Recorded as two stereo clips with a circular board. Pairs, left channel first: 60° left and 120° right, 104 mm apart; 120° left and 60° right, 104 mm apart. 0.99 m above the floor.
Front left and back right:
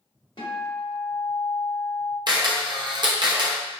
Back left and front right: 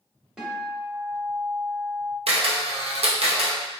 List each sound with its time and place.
0.4 s a guitar: 25° left, 1.1 m
2.3 s a camera shutter: 75° right, 0.6 m